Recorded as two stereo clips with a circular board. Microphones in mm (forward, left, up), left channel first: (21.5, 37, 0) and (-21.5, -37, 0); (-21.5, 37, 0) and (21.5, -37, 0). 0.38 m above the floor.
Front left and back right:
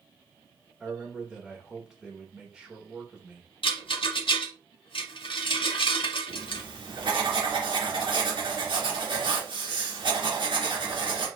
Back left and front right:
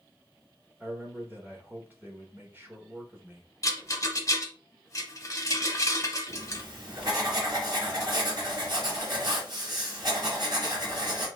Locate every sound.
0.8 s a man speaking: 50° right, 1.3 m
3.6 s a rattle: 65° left, 0.8 m
6.3 s writing: 100° right, 2.5 m